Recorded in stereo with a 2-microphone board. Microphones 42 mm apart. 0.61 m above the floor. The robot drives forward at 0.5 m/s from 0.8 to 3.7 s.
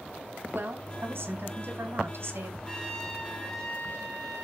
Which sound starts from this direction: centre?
A trumpet, at 2.7 s.